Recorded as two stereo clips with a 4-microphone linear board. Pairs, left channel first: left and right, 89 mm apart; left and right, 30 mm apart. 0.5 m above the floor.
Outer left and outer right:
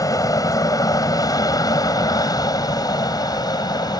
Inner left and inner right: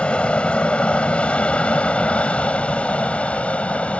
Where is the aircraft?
40° left (ahead or behind); by 4.0 s 50° left (ahead or behind).